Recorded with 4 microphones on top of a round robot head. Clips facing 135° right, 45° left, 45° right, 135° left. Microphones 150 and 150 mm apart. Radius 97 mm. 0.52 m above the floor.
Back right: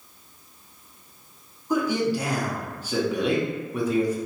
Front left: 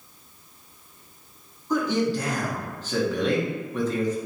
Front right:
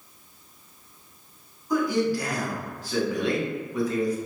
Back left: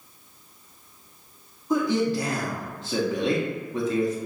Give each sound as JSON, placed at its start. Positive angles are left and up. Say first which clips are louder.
{"t": 1.7, "sound": "a man speaking", "louder": "even, back left 1 dB", "azimuth_deg": 160, "distance_m": 0.9}